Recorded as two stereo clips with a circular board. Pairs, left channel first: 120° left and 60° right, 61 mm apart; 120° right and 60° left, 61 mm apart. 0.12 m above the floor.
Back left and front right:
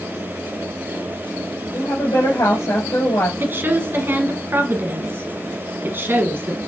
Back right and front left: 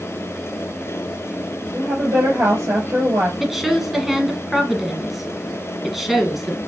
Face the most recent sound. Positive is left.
turn(degrees=-30)